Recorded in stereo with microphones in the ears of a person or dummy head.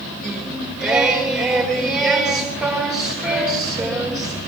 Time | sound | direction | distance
0.2 | singing | 5° left (ahead or behind) | 3.5 m